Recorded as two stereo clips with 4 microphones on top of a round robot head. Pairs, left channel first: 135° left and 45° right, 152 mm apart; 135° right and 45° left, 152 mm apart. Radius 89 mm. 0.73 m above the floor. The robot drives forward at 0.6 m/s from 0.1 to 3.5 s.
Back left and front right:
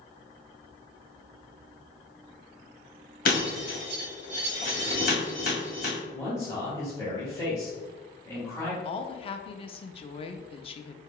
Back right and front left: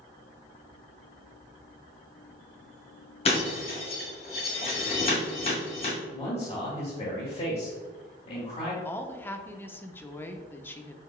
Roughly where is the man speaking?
Behind.